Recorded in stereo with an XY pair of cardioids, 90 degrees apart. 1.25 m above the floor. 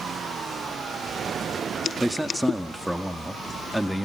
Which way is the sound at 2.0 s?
Straight ahead.